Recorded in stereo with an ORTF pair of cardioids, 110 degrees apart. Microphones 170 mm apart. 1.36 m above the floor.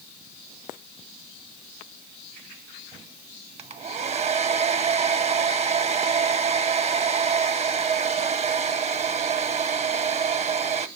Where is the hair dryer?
35° right, 0.7 m.